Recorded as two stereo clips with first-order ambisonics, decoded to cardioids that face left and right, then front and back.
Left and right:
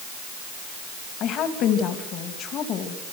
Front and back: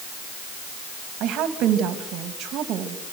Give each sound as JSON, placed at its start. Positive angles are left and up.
{"t": 1.2, "sound": "a woman speaking", "azimuth_deg": 140, "distance_m": 2.5}